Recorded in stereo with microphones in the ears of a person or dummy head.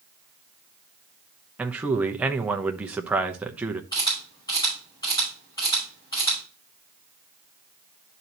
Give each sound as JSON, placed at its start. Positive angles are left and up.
{"t": 1.6, "sound": "a man speaking", "side_deg": -5, "distance_m": 0.9}
{"t": 3.9, "sound": "a camera shutter", "side_deg": 25, "distance_m": 5.5}